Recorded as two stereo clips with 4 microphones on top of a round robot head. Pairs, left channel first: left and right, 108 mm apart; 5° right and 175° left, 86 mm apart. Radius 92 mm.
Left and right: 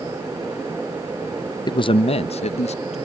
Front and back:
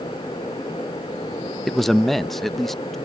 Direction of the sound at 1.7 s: 85° left.